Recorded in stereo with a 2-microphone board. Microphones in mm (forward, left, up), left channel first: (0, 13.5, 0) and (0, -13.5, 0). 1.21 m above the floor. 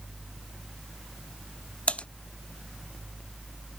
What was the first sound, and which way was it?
Typing on a keyboard, 55° left (ahead or behind).